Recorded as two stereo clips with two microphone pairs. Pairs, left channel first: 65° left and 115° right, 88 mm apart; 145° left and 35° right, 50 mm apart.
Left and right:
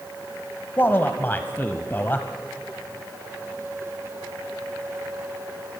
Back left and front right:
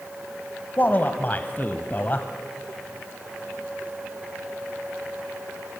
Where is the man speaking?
120° left, 1.1 m.